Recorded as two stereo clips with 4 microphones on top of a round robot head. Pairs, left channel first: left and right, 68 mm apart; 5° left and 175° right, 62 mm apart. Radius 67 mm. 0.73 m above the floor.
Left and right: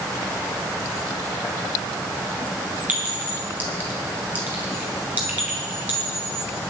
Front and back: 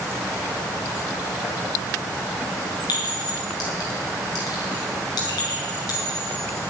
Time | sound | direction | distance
2.9 | a clink | 25° right | 4.5 m